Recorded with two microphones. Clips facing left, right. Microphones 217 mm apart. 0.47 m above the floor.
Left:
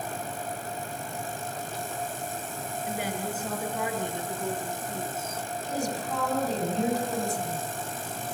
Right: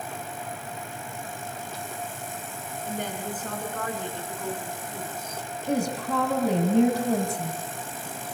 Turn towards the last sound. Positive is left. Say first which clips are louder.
# right 6 dB
turn(degrees=-65)  # may be behind; listen again after turning